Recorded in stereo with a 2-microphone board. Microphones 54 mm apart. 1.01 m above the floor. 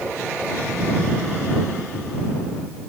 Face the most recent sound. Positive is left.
No sound to turn to.